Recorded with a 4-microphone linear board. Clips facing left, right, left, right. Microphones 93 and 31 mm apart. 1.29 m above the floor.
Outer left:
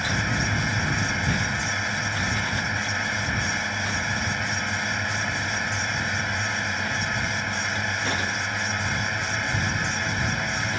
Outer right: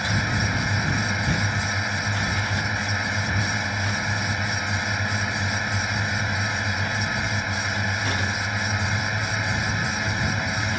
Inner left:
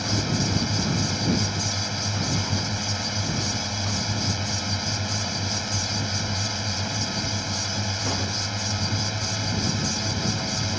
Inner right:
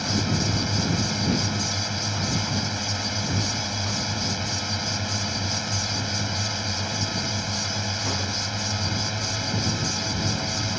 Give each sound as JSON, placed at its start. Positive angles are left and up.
{"t": 0.0, "sound": "a drone", "side_deg": -5}